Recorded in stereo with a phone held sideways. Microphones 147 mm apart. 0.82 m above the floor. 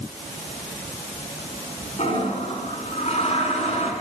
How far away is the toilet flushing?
About 5 m.